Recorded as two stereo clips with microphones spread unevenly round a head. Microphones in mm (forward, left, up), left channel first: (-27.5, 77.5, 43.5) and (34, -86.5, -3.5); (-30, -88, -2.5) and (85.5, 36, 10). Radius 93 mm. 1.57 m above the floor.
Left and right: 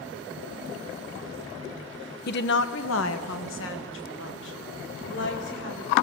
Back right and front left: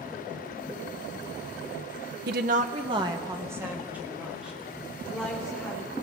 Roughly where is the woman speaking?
Left.